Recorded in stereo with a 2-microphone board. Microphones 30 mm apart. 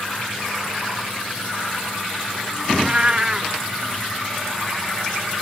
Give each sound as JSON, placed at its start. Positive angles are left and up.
{"t": 2.7, "sound": "a cat meowing", "side_deg": -25}